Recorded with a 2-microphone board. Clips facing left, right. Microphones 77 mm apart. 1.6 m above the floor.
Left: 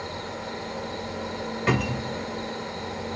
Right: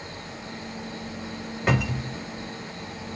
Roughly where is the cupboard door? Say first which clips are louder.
Even; centre.